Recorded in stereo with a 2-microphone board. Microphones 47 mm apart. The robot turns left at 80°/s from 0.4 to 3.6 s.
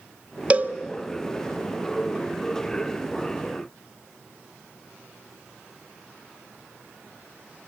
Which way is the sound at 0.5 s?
25° right (ahead or behind).